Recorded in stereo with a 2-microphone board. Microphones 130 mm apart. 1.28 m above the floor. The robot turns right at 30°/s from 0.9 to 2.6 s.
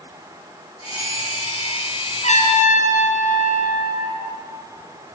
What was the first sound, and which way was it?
A trumpet, 55° left (ahead or behind).